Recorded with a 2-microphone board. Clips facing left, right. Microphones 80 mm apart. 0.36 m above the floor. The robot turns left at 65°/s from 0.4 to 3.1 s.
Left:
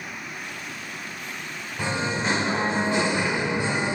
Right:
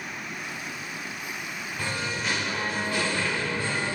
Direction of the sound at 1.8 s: 20° left (ahead or behind).